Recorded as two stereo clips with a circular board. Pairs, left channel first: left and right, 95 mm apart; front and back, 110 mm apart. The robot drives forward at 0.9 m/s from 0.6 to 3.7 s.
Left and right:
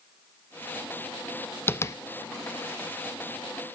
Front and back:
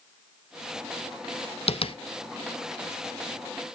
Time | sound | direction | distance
1.7 | tapping | 25° left | 0.9 m